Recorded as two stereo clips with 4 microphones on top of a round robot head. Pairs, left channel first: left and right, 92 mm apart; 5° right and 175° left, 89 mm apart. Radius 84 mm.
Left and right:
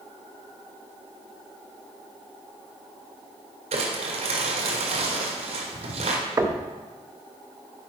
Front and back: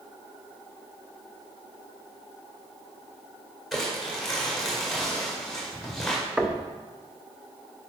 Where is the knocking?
105° right, 0.7 m.